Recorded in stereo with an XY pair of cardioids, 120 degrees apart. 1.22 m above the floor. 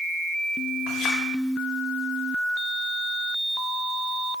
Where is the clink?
65° left, 1.8 m.